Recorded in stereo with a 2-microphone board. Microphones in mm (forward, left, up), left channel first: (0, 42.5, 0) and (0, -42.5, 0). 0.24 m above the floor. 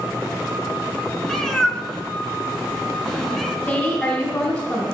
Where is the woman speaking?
10° left (ahead or behind), 2 m.